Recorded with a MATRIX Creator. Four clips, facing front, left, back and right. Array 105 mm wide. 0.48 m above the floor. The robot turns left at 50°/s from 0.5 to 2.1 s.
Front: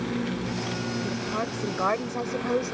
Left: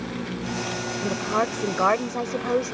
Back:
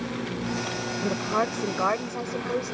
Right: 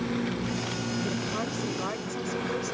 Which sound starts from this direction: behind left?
A woman speaking, at 1.0 s.